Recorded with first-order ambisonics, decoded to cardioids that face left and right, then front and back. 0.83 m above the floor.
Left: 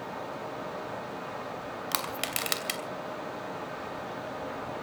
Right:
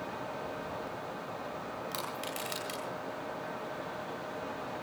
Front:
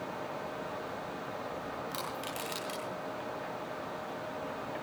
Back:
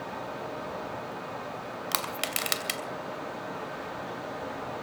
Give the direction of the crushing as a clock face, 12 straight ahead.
7 o'clock.